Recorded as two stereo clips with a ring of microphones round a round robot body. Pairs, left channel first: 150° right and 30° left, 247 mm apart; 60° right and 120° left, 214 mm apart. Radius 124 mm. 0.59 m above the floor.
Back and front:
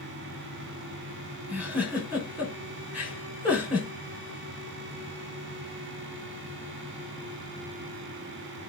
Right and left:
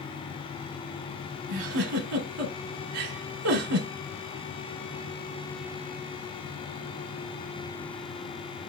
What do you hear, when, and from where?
1.5 s a giggle: 115° left, 1.2 m